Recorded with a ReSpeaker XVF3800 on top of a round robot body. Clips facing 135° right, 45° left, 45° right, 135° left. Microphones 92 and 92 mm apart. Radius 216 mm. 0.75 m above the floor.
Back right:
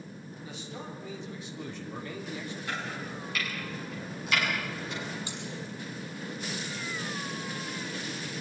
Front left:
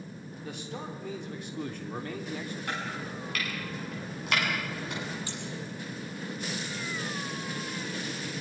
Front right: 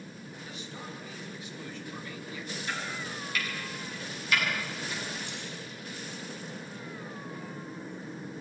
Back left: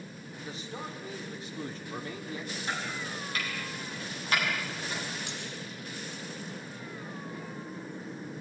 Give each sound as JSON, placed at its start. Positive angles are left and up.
{"t": 0.4, "sound": "a man speaking", "azimuth_deg": 80, "distance_m": 4.0}
{"t": 2.7, "sound": "chopping", "azimuth_deg": 80, "distance_m": 8.5}
{"t": 5.3, "sound": "cutlery clinking", "azimuth_deg": 150, "distance_m": 7.0}